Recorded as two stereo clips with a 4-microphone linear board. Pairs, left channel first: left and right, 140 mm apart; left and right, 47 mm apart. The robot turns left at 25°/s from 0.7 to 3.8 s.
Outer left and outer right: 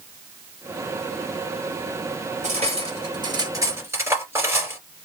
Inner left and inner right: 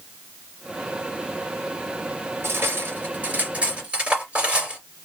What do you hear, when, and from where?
2.4 s cutlery clinking: 50° right (ahead or behind), 3 m; by 4.8 s 20° right (ahead or behind), 3 m